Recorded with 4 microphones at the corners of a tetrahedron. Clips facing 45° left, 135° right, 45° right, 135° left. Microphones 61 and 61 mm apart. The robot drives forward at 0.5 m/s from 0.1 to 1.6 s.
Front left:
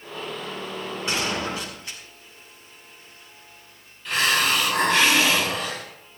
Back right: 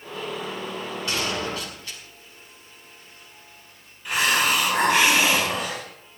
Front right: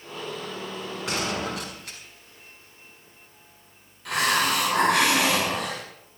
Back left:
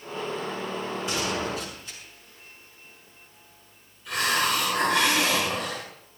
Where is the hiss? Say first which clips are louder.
Even, front right 2 dB; 60° right, 5 m.